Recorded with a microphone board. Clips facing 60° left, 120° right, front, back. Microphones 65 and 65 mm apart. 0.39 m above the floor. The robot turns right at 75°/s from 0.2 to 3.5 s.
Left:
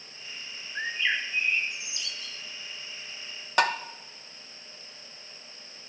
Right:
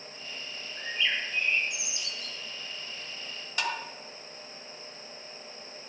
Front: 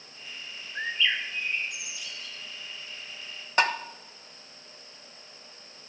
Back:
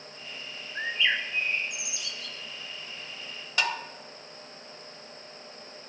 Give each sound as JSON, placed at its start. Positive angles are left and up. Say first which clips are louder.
{"t": 0.8, "sound": "a bird", "louder": "left 3 dB, back 1 dB", "azimuth_deg": 85, "distance_m": 2.0}
{"t": 3.6, "sound": "tapping", "louder": "left 8 dB, front 5 dB", "azimuth_deg": 45, "distance_m": 1.0}